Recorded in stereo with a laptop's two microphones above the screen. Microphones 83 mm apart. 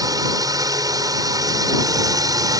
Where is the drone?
55° right (ahead or behind).